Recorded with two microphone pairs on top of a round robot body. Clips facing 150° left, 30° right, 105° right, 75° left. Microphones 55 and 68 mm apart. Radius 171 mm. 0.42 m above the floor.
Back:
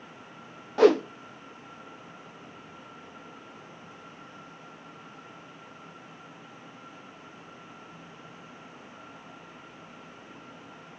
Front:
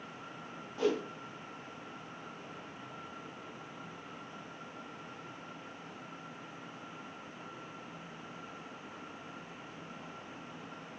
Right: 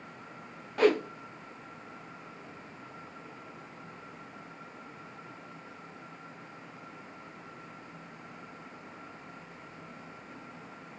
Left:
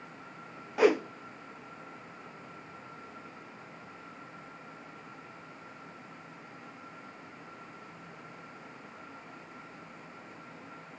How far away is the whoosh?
About 0.6 m.